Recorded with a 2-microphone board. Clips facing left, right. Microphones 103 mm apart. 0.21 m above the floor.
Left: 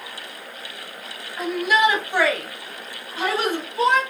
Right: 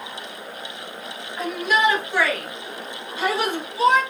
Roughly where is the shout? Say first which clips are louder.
Left 2 dB; centre.